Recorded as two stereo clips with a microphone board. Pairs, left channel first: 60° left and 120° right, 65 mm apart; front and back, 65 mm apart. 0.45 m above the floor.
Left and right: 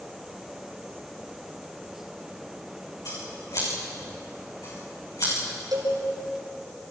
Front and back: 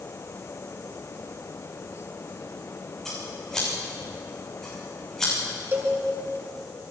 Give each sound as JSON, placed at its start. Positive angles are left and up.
{"t": 3.0, "sound": "scissors", "azimuth_deg": 80, "distance_m": 7.5}
{"t": 5.7, "sound": "a cowbell", "azimuth_deg": -130, "distance_m": 6.0}